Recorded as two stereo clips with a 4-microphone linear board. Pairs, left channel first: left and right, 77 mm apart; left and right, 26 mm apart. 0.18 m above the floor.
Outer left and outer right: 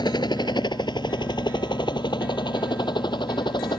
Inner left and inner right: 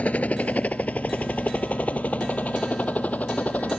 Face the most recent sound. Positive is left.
turn(degrees=70)  # may be behind; listen again after turning